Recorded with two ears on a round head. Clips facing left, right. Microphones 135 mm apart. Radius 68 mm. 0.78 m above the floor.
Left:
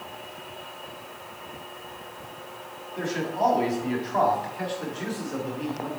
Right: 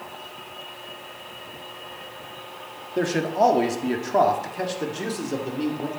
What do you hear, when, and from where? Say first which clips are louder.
3.0 s a man speaking: right 5 dB; 65° right (ahead or behind), 1.6 m; by 5.9 s 40° right (ahead or behind), 2.5 m